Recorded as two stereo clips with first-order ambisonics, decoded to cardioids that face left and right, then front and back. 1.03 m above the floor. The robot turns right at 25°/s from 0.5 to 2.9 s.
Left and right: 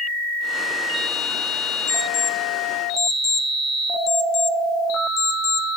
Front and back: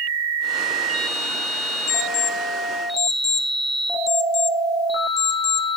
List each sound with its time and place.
1.9 s an alarm clock: 20° left, 1.2 m; by 5.7 s 45° left, 1.2 m